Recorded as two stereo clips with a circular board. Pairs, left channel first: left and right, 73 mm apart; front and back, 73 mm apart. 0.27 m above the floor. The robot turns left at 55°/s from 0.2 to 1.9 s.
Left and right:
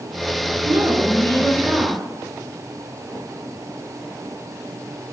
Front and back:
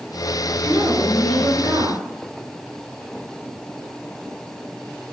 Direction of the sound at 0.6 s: 95° right.